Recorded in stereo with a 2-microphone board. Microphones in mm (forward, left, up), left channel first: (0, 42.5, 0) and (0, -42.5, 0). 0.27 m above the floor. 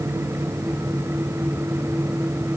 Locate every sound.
Only background noise.